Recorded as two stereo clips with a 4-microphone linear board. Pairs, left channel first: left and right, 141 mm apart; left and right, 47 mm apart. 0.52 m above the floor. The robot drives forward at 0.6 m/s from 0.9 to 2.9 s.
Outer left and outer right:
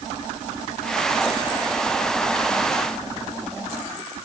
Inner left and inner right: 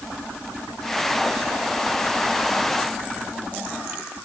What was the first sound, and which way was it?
Only background noise.